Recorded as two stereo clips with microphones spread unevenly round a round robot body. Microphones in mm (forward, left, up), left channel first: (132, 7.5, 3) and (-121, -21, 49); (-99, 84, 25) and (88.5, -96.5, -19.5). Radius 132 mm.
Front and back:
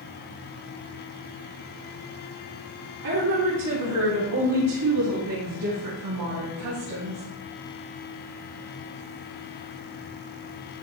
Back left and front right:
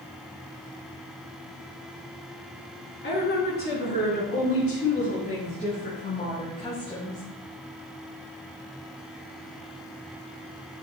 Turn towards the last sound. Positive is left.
turn(degrees=-145)